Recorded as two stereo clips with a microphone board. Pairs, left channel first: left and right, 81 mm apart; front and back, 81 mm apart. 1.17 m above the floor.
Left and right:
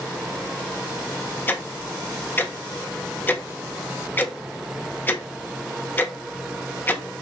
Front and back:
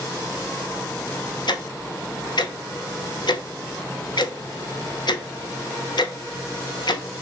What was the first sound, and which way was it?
Ticking, 25° left.